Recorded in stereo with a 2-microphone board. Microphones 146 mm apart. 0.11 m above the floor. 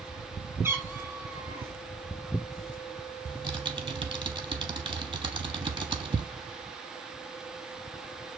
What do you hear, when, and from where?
0.6 s a cat meowing: 15° right (ahead or behind), 0.7 m
3.2 s typing on a keyboard: 35° right (ahead or behind), 0.8 m